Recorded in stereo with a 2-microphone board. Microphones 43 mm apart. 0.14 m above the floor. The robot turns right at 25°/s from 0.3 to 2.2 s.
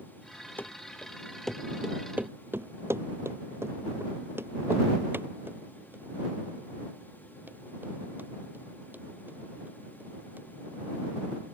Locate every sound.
0.6 s running footsteps: 50° left (ahead or behind); by 10.8 s 45° right (ahead or behind)